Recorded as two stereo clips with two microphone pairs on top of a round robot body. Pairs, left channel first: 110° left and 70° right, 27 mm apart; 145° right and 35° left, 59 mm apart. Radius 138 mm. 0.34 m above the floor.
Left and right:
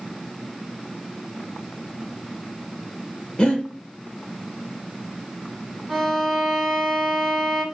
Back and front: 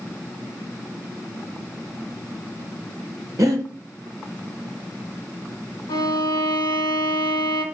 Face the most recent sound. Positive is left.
turn(degrees=-170)